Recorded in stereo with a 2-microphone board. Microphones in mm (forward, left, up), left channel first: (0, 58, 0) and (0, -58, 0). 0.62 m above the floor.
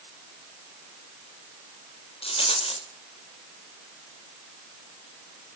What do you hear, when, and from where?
2.2 s a rattle: 55° left (ahead or behind), 2.5 m